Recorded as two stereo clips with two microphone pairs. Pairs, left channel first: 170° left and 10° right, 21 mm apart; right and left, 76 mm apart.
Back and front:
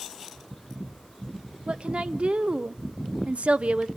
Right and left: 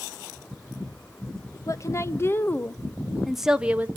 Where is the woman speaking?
45° right, 1.2 m; by 3.9 s 20° left, 0.8 m.